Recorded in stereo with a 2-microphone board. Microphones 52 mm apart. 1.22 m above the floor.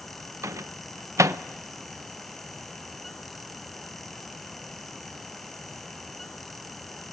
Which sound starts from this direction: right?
A microwave, at 0.4 s.